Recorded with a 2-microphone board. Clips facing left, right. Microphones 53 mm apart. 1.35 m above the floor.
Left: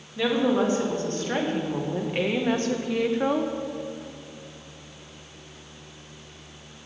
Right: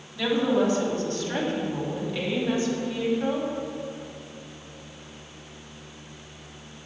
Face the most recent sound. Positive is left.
turn(degrees=80)